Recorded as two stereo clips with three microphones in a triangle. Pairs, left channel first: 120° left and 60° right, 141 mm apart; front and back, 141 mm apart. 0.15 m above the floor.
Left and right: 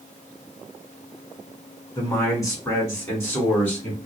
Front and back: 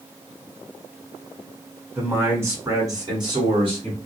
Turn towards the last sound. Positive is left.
turn(degrees=-170)